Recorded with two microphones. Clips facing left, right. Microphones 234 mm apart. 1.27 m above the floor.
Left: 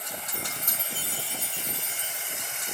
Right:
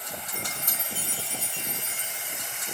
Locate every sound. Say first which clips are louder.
0.3 s a chime: even; 35° left (ahead or behind), 1.6 m